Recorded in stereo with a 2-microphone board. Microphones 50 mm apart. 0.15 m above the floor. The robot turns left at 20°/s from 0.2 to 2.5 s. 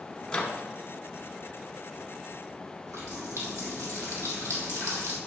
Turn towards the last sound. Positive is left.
turn(degrees=-75)  # may be behind; listen again after turning